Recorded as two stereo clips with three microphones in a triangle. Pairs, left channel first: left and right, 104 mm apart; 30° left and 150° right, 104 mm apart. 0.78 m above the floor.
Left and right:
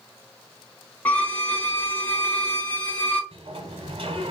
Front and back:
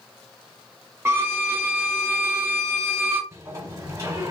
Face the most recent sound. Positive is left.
turn(degrees=-90)